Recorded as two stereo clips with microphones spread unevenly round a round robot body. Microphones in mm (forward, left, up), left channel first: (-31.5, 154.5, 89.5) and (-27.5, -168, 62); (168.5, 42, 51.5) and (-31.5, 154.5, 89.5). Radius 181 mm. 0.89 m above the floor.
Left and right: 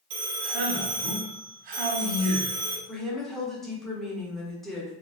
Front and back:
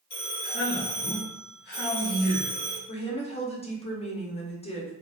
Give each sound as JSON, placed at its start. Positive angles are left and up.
{"t": 0.1, "sound": "a man speaking", "azimuth_deg": -80, "distance_m": 0.8}
{"t": 2.9, "sound": "a woman speaking", "azimuth_deg": -5, "distance_m": 0.8}